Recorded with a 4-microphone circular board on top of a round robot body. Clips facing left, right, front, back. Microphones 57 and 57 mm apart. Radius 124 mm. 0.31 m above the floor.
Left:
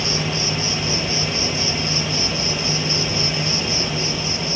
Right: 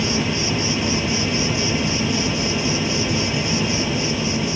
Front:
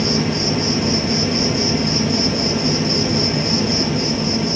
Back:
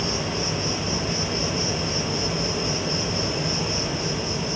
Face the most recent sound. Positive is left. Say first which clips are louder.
# right 2 dB, front 7 dB
turn(degrees=-5)